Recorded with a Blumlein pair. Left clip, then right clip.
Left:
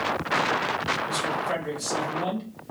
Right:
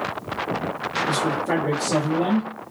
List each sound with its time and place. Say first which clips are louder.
1.1 s a man speaking: right 4 dB; 40° right, 2.5 m; by 2.7 s 45° right, 1.5 m